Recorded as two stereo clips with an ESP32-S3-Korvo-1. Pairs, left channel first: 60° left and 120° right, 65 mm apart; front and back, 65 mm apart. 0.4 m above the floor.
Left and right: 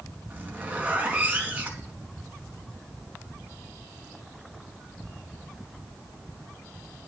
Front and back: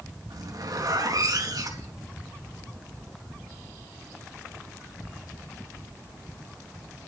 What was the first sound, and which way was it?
A zipper, 175° left.